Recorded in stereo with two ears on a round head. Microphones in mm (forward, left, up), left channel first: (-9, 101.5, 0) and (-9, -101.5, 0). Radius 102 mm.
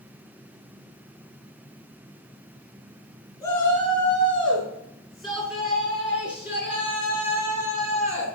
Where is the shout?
10° left (ahead or behind), 6 m; by 8.2 s 15° right (ahead or behind), 7.5 m.